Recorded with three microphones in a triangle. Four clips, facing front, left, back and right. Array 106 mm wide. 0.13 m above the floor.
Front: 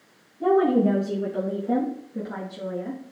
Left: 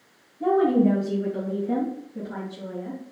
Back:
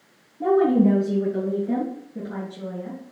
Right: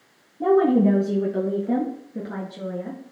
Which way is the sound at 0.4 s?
110° right.